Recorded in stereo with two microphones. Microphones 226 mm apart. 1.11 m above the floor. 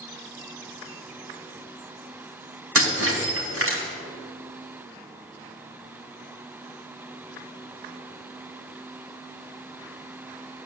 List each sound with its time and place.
2.8 s breaking glass: 65° right (ahead or behind), 3.5 m